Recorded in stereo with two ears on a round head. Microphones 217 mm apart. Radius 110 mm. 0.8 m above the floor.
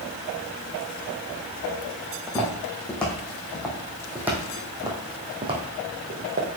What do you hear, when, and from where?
2.1 s footsteps: 10° left (ahead or behind), 3 m; by 6.5 s 35° right (ahead or behind), 2 m